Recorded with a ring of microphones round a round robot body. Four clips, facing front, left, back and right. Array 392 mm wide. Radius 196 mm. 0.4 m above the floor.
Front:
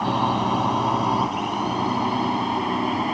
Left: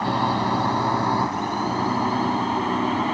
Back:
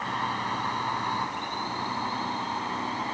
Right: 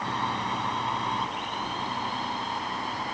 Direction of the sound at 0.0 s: 35° left.